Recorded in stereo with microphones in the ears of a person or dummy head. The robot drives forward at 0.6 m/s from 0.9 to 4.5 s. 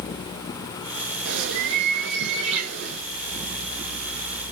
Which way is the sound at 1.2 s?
75° right (ahead or behind).